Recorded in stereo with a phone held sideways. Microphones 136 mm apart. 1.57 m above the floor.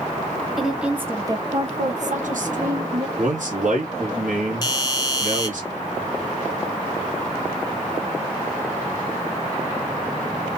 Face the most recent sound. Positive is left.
turn(degrees=30)  # may be behind; listen again after turning